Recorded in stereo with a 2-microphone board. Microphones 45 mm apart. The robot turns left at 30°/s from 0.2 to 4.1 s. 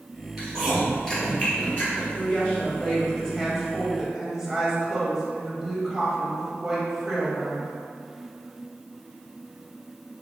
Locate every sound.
0.4 s chewing: 5° right (ahead or behind), 1.9 m; by 2.0 s 45° left (ahead or behind), 1.9 m
2.1 s a woman speaking: 40° left, 1.2 m; by 7.7 s 15° right, 1.2 m